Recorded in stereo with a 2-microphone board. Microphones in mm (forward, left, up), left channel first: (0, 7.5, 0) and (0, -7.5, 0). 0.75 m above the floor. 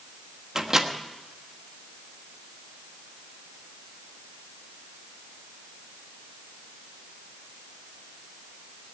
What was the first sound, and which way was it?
A microwave, 35° right (ahead or behind).